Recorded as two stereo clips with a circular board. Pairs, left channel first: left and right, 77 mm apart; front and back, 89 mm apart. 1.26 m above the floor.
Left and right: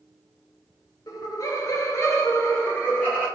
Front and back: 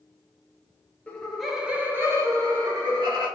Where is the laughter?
70° left, 0.8 m; by 3.3 s 155° left, 1.3 m.